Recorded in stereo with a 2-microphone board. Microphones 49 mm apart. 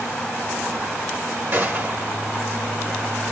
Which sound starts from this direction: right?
A gunshot, at 1.5 s.